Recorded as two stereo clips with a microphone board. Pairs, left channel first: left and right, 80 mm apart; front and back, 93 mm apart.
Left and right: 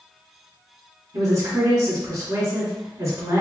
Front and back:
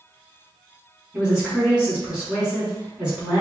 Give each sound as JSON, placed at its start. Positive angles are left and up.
{"t": 1.1, "sound": "a woman speaking", "azimuth_deg": -105, "distance_m": 1.6}